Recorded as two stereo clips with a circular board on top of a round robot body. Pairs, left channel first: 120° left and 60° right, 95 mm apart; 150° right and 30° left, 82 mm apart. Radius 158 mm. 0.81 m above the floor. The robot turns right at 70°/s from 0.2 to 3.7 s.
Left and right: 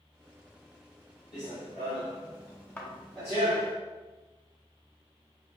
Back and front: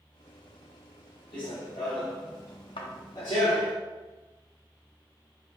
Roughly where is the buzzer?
No buzzer in this recording.